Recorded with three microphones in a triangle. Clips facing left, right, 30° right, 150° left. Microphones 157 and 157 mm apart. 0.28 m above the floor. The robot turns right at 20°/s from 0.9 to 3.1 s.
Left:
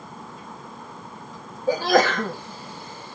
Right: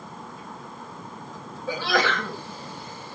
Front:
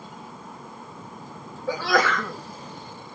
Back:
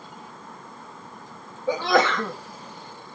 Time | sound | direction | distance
1.7 | a sneeze | 90° left | 2 m